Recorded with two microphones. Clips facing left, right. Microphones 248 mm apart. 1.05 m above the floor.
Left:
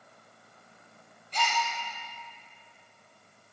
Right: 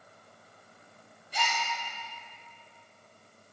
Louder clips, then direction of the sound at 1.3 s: Left 3 dB; 10° right (ahead or behind).